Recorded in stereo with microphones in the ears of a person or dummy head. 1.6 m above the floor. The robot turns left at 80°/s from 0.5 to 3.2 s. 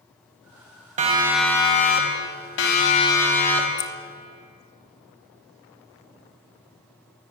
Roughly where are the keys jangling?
Left.